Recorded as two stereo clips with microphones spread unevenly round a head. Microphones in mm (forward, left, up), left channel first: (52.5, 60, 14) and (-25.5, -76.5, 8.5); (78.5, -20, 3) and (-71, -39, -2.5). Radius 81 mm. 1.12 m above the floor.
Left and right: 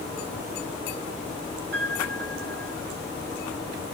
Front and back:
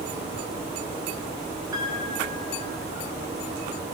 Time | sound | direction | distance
1.7 | a piano | 105° right | 6.5 m